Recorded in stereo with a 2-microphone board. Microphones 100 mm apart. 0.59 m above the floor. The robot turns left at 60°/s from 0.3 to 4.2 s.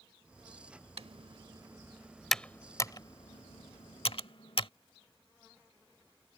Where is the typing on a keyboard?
75° right (ahead or behind); by 4.7 s 65° left (ahead or behind).